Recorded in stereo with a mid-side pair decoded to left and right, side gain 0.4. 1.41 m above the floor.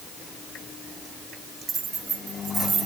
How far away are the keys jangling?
About 5 m.